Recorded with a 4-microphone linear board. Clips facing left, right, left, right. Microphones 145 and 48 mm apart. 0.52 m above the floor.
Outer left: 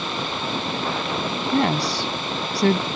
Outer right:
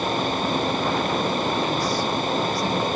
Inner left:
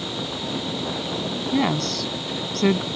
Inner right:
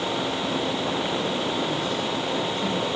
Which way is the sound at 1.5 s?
75° left (ahead or behind).